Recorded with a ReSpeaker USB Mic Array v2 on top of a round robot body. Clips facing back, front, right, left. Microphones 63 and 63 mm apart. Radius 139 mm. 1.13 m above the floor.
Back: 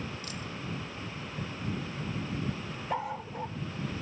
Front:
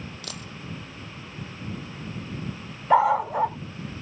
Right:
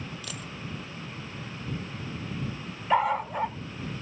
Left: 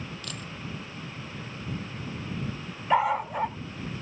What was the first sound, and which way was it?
A dropped coin, 5° right.